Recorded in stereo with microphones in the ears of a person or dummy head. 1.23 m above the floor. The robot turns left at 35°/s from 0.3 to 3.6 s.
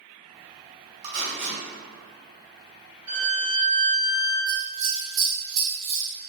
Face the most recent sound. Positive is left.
turn(degrees=-45)  # may be behind; listen again after turning